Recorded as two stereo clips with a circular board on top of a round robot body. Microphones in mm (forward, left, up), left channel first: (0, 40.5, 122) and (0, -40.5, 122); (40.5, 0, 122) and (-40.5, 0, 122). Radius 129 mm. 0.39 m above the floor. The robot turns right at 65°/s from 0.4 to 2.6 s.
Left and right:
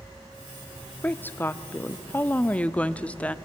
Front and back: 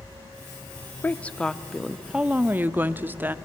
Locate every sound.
1.0 s a woman speaking: 45° left, 0.8 m; by 3.4 s 145° left, 0.8 m